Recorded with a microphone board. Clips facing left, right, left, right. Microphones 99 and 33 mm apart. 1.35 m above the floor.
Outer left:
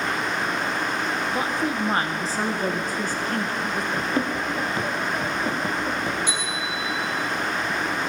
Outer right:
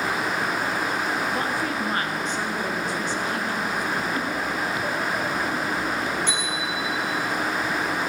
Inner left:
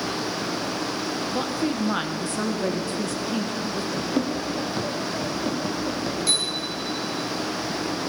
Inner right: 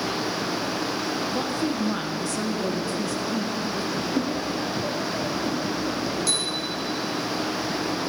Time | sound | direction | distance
1.3 | a woman speaking | 15° left (ahead or behind) | 1.2 m
3.9 | running footsteps | 35° left (ahead or behind) | 1.7 m
6.3 | a bicycle bell | 15° left (ahead or behind) | 5 m